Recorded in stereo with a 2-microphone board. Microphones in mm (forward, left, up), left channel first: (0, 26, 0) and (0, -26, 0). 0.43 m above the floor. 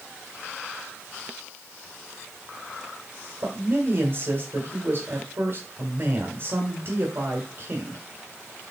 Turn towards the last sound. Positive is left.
turn(degrees=-45)  # may be behind; listen again after turning